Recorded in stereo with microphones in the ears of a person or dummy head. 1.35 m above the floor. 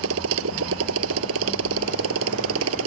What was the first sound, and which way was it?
A motorcycle, 75° right (ahead or behind).